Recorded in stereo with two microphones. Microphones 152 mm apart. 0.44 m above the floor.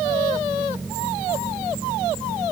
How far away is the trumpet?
I don't hear a trumpet.